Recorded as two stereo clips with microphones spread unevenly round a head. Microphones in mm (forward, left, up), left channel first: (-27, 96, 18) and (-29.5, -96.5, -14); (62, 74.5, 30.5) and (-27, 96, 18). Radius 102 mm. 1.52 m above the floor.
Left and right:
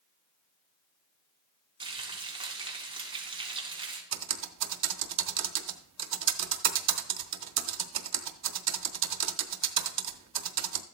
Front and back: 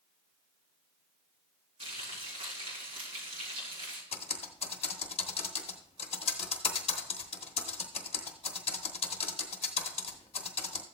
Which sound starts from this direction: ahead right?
Typing on a keyboard, at 4.1 s.